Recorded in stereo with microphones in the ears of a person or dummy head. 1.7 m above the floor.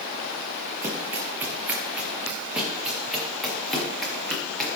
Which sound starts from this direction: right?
Running footsteps, at 0.8 s.